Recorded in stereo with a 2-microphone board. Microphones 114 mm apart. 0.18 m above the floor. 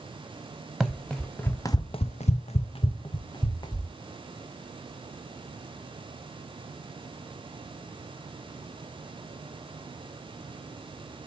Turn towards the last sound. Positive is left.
turn(degrees=35)  # may be behind; listen again after turning